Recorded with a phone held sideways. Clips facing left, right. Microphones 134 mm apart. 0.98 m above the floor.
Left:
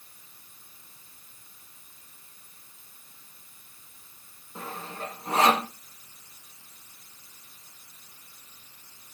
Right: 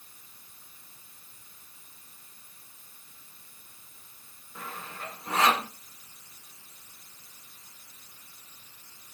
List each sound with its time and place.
4.5 s sawing: 30° left (ahead or behind), 2 m